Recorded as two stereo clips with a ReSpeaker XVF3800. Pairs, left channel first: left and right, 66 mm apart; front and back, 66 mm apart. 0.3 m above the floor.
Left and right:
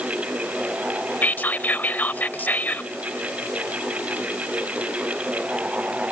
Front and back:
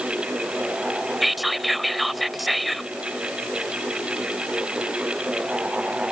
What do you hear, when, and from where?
1.2 s whispering: 90° left